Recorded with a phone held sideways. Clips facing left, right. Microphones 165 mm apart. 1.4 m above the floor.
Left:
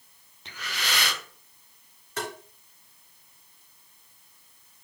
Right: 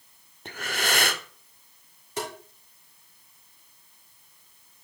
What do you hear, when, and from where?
0.5 s breathing: 50° right (ahead or behind), 0.5 m
2.2 s tapping: 15° right (ahead or behind), 2.5 m